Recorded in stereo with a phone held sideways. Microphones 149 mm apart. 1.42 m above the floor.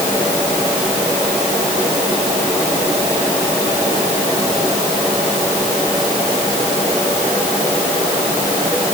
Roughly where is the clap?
No clap in this recording.